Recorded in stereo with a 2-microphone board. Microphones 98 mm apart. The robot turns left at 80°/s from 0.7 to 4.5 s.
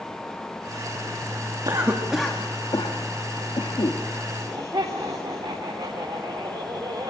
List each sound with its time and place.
1.6 s a cough: 40° right (ahead or behind), 1.8 m; by 4.0 s 35° left (ahead or behind), 1.8 m
4.3 s laughter: 30° right (ahead or behind), 4 m; by 7.1 s 45° right (ahead or behind), 4 m